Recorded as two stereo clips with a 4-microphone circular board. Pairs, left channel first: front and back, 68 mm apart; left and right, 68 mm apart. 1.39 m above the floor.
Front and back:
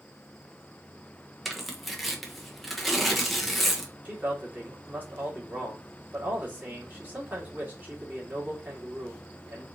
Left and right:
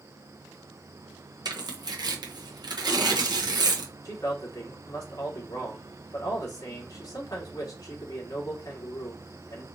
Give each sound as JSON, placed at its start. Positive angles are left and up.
{"t": 1.4, "sound": "tearing paper", "azimuth_deg": -90, "distance_m": 0.7}
{"t": 4.0, "sound": "a man speaking", "azimuth_deg": 115, "distance_m": 1.6}